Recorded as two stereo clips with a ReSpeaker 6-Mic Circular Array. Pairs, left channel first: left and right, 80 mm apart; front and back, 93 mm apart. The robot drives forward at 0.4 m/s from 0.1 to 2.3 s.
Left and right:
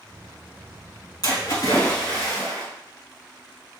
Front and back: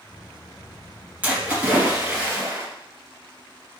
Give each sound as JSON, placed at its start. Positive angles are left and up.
{"t": 1.2, "sound": "a splash", "azimuth_deg": 115, "distance_m": 2.5}